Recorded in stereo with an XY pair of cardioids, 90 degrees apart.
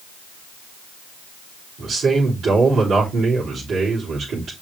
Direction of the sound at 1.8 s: 70° right.